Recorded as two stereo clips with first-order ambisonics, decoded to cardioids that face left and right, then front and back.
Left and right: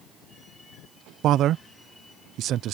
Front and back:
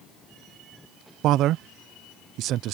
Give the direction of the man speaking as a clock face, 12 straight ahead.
5 o'clock.